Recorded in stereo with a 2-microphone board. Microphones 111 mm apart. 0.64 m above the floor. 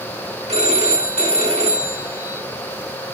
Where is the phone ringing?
70° right (ahead or behind), 3 m.